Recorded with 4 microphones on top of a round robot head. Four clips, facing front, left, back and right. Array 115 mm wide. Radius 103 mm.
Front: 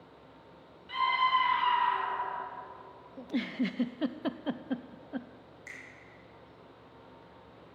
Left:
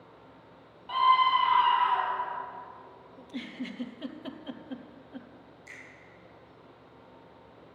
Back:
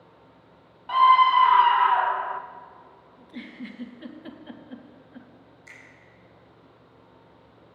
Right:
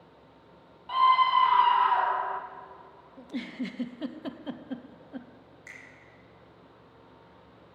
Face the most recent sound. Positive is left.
turn(degrees=-50)